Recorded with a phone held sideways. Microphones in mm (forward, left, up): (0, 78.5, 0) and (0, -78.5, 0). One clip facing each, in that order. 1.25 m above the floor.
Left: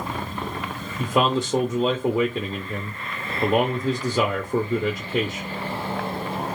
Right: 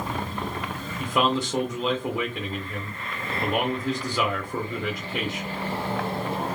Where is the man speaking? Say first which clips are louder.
Left 3 dB; 30° left (ahead or behind), 0.5 m.